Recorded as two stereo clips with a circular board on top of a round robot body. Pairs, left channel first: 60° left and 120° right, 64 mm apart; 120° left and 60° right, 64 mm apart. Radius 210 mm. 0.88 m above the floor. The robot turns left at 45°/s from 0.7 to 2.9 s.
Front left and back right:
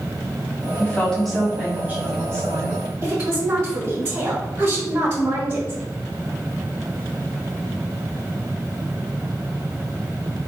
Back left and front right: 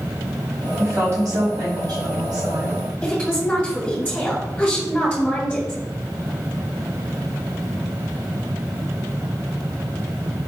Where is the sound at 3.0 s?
160° right, 2 m.